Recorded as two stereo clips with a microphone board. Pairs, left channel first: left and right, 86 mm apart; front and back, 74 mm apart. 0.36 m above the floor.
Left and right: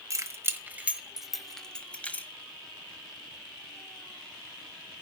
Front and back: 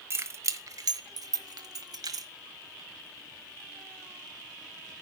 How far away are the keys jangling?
About 1.2 m.